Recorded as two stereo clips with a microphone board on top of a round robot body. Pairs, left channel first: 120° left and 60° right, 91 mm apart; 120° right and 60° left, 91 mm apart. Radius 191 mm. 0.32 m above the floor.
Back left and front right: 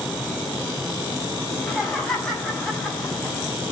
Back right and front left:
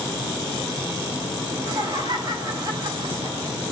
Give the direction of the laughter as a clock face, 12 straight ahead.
11 o'clock.